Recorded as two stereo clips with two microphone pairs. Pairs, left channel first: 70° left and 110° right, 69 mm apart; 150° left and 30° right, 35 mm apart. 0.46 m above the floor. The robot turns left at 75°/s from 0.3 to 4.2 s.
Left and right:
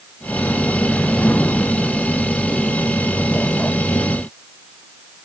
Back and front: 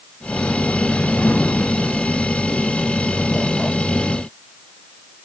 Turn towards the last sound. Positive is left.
No sound to turn to.